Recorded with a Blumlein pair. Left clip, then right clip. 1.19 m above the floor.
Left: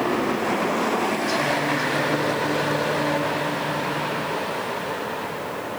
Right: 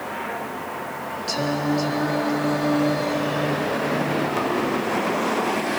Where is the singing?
70° right, 3 m.